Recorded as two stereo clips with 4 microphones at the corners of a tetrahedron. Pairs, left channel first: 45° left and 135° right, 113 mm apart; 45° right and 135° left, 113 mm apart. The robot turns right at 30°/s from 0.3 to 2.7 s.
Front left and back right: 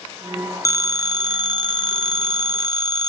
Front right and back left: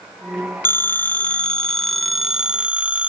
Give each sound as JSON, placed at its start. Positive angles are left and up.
{"t": 0.7, "sound": "a phone ringing", "azimuth_deg": 5, "distance_m": 0.9}